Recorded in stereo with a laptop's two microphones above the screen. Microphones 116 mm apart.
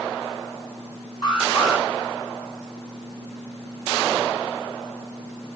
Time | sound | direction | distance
1.2 | an alarm | 35° left (ahead or behind) | 7 m